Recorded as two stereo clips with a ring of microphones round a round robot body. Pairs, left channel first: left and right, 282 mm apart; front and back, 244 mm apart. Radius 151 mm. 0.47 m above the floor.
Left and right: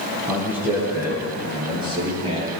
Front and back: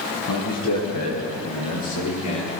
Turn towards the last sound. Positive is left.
turn(degrees=-20)